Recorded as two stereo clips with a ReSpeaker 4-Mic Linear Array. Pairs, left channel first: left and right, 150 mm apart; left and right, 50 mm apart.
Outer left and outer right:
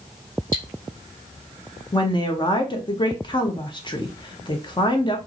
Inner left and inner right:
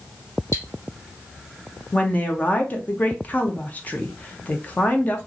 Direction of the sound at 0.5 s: 70° left (ahead or behind).